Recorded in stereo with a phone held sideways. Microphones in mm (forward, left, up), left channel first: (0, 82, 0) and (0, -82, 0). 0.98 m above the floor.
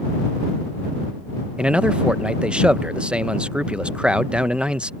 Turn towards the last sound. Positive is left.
turn(degrees=-5)  # may be behind; listen again after turning